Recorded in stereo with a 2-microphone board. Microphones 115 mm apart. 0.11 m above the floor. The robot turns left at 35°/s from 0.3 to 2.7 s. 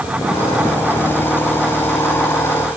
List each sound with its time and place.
Only background noise.